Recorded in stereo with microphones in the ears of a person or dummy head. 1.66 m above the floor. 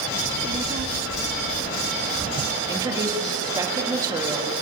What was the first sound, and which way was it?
A child speaking, 30° right (ahead or behind).